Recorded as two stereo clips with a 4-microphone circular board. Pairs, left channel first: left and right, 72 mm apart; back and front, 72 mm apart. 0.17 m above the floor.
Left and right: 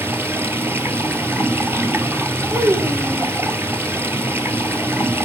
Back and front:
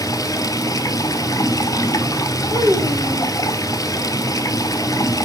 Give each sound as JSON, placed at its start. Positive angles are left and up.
{"t": 0.0, "sound": "running water", "azimuth_deg": -145, "distance_m": 1.1}
{"t": 2.5, "sound": "a child speaking", "azimuth_deg": -55, "distance_m": 3.0}